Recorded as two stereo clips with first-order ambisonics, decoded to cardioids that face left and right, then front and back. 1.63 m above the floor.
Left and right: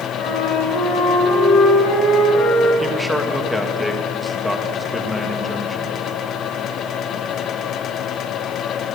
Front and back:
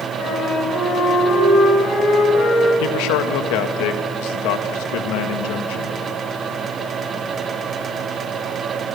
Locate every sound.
0.2 s a flute: 45° left, 8 m
2.8 s a man speaking: straight ahead, 2 m